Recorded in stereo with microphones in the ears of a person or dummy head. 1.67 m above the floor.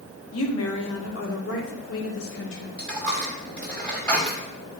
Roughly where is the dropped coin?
Centre.